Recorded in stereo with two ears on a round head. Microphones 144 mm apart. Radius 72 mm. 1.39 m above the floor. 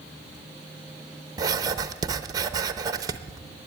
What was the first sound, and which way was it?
Writing, 25° right (ahead or behind).